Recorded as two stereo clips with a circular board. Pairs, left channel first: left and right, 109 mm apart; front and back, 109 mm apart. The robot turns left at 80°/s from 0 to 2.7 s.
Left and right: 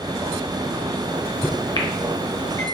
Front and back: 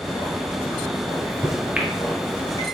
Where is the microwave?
170° left, 1.0 m; by 2.6 s 45° left, 1.0 m.